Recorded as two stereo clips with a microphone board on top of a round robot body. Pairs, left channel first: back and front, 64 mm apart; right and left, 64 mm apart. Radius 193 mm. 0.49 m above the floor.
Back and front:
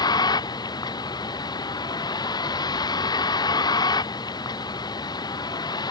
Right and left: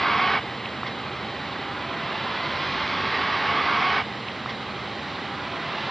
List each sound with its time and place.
0.0 s a vehicle: straight behind